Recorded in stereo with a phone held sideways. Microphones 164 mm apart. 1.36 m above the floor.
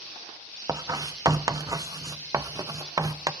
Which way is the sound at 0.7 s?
20° right (ahead or behind).